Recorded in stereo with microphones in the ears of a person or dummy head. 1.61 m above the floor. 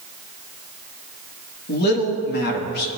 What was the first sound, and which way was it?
A man speaking, 55° left (ahead or behind).